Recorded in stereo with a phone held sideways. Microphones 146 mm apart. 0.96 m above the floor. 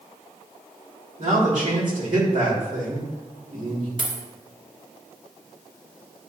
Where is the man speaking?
65° right (ahead or behind), 1.7 m.